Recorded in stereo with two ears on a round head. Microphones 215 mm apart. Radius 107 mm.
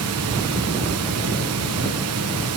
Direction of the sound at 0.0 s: 70° right (ahead or behind).